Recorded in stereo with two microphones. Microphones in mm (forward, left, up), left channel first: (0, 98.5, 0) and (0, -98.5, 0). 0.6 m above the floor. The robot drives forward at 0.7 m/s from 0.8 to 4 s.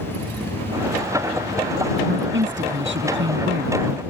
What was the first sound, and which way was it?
A woman speaking, 75° right (ahead or behind).